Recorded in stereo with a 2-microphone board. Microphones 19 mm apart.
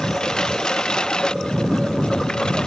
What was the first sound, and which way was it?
A lawn mower, 45° left (ahead or behind).